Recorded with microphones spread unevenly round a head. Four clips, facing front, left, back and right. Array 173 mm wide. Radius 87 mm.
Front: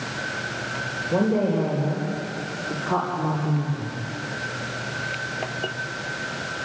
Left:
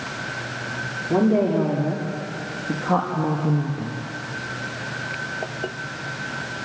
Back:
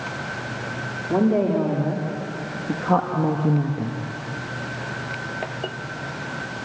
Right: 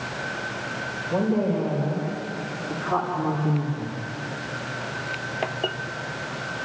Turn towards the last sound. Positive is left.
turn(degrees=170)